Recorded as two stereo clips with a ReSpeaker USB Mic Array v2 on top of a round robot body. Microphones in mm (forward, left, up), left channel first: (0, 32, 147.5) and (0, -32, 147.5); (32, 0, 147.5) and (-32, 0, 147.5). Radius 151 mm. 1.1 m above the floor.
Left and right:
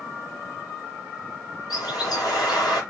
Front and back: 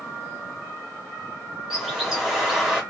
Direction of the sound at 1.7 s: 100° left.